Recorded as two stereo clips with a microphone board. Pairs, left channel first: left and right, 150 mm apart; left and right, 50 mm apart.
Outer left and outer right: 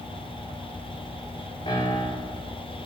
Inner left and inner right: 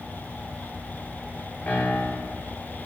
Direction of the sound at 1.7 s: 40° left (ahead or behind).